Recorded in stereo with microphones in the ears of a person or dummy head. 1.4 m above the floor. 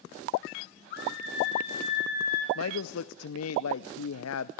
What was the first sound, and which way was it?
A scream, 60° left (ahead or behind).